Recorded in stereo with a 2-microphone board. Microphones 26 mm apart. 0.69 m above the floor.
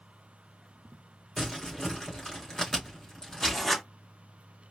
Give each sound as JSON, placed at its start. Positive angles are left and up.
{"t": 1.4, "sound": "crumpling", "side_deg": 15, "distance_m": 3.0}
{"t": 3.4, "sound": "writing", "side_deg": 5, "distance_m": 0.8}